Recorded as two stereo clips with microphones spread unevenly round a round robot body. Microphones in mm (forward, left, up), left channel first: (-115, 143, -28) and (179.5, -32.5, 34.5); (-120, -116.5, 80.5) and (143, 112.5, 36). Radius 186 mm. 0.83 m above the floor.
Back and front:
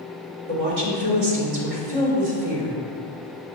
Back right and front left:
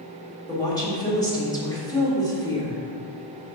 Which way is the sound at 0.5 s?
55° right.